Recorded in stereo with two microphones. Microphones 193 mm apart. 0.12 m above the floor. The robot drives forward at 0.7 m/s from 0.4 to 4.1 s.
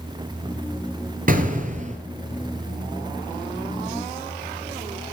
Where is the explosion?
45° right (ahead or behind), 1.8 m; by 2.0 s 40° right (ahead or behind), 2 m.